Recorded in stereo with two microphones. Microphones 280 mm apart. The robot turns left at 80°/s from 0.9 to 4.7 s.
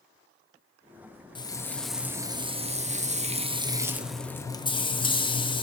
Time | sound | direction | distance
1.4 | frying | 15° left (ahead or behind) | 0.6 m